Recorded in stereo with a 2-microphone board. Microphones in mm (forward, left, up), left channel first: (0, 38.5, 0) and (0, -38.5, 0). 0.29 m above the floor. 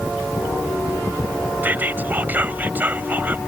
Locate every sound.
1.6 s whispering: 25° right (ahead or behind)